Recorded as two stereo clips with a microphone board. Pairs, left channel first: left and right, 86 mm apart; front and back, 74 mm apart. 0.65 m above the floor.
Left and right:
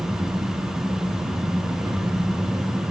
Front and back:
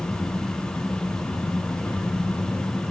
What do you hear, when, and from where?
0.0 s an engine running: 60° right, 5.5 m